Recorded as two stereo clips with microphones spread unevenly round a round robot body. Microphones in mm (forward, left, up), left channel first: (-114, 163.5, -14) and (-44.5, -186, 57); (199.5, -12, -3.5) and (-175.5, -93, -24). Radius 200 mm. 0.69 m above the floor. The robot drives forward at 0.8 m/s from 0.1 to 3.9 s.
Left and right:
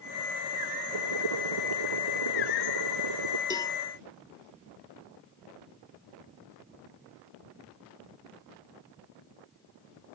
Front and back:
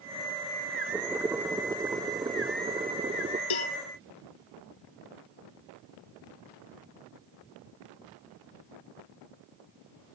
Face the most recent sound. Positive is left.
turn(degrees=20)